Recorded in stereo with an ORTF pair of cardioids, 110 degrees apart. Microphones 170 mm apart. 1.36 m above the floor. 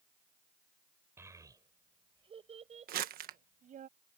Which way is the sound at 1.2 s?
15° right.